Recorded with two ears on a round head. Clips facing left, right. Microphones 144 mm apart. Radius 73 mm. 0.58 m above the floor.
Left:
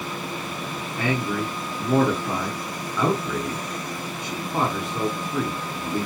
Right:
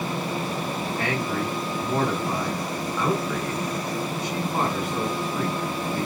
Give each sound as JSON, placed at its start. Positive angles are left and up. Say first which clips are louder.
{"t": 1.0, "sound": "a man speaking", "louder": "left 4 dB", "side_deg": 70, "distance_m": 6.0}